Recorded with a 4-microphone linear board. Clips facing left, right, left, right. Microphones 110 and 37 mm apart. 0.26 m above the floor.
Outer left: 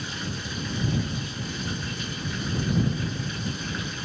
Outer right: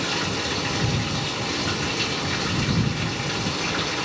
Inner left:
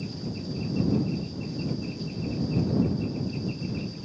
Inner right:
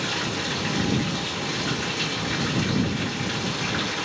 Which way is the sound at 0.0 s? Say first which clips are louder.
Outer right 8 dB, inner right 8 dB; 75° right (ahead or behind).